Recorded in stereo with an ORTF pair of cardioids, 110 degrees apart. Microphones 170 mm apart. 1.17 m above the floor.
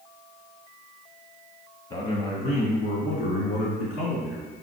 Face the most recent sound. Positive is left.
turn(degrees=75)